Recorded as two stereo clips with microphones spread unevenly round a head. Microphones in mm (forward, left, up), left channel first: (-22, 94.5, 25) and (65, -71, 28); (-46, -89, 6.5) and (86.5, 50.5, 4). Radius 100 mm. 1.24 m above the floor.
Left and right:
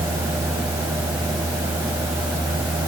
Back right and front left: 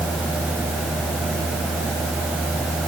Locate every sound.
Only background noise.